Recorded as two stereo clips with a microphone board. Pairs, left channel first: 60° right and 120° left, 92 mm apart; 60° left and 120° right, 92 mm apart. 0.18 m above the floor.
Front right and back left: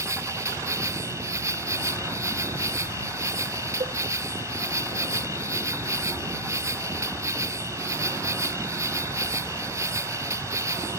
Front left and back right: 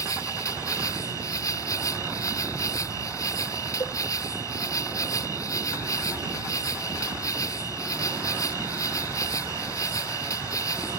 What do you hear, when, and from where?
0.0 s an insect: 85° left
3.8 s a cowbell: 105° left